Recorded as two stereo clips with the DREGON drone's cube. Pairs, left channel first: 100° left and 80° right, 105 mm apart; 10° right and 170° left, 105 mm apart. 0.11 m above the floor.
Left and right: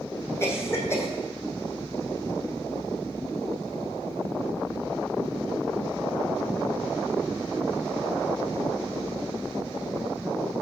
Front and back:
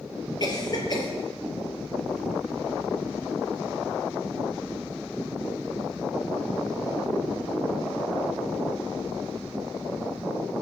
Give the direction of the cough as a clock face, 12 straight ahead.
11 o'clock.